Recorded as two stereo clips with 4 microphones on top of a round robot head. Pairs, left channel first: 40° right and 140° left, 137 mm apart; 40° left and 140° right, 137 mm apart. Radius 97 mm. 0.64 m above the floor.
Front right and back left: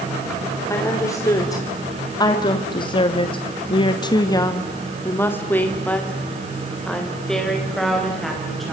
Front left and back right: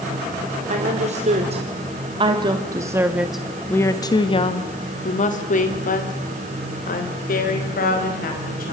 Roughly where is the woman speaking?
Right.